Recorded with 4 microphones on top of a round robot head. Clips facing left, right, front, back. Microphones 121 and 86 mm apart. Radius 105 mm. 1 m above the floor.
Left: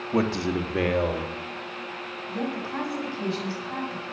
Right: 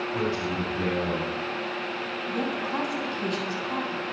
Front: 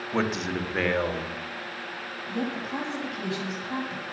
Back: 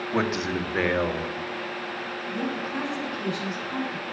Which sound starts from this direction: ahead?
A woman speaking, at 2.3 s.